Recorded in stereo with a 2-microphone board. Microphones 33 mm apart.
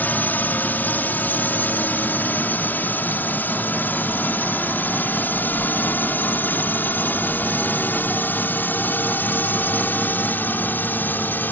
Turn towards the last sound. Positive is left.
turn(degrees=65)  # may be behind; listen again after turning